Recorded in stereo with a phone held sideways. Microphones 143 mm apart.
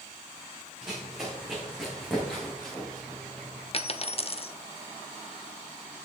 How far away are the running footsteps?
About 5.5 m.